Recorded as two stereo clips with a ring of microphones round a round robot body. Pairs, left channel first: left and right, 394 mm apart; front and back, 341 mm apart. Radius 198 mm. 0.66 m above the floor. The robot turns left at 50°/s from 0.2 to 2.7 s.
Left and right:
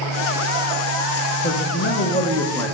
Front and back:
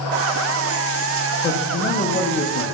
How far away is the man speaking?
About 0.9 m.